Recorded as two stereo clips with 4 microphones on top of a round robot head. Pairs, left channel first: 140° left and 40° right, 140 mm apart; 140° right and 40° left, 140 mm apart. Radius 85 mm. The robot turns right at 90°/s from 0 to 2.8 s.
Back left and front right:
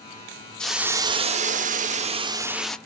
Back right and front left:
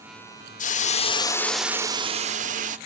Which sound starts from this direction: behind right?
A hiss, at 0.6 s.